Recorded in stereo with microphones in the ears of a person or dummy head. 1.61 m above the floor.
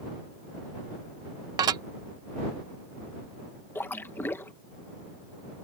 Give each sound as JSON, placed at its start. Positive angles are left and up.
{"t": 1.6, "sound": "dishes clattering", "side_deg": -20}
{"t": 3.8, "sound": "a splash", "side_deg": 10}